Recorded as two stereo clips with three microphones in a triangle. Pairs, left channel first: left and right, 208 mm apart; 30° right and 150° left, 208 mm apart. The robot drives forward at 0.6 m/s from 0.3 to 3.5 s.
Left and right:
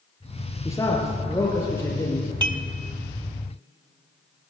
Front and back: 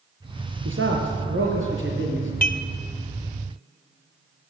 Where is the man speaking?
165° left, 5 m.